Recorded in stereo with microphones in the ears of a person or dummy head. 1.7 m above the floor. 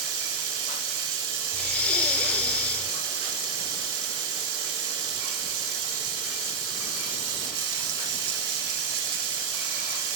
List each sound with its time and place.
0.0 s running water: 75° right (ahead or behind), 1.7 m
1.5 s breathing: 5° left (ahead or behind), 0.7 m